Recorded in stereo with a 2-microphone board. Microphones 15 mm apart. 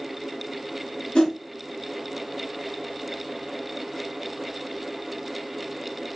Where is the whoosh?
75° left (ahead or behind), 1.8 m.